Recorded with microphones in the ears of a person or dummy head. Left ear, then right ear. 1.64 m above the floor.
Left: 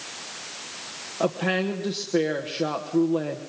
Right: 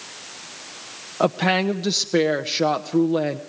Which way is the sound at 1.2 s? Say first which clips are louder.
Right 5 dB; 70° right (ahead or behind).